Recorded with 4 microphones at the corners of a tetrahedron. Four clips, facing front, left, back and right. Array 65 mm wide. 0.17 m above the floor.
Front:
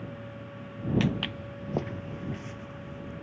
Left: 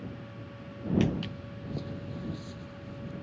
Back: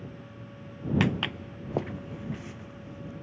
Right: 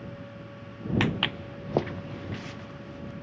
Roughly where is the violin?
No violin in this recording.